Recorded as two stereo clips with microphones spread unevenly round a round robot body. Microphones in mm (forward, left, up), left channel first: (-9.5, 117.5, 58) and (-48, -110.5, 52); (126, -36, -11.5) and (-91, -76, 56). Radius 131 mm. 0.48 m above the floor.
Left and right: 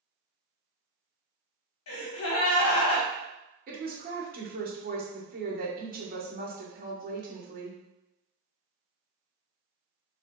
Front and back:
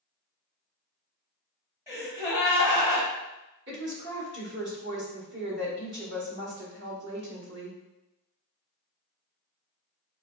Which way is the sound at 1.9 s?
105° left.